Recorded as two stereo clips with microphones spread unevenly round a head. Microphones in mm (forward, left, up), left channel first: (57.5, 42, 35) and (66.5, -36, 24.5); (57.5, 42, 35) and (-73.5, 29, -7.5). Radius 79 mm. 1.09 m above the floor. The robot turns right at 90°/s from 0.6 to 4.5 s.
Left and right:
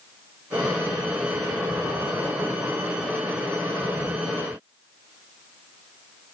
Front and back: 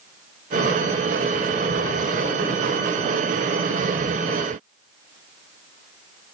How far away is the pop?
No pop in this recording.